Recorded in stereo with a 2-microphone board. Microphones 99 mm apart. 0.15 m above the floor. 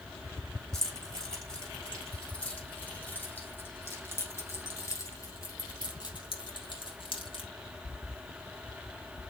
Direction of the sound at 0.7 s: 5° left (ahead or behind).